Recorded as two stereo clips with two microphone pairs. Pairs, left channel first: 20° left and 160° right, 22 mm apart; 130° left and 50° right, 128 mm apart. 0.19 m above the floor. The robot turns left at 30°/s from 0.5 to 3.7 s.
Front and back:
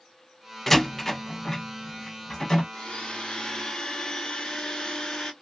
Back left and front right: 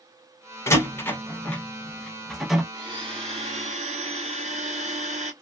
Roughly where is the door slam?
Left.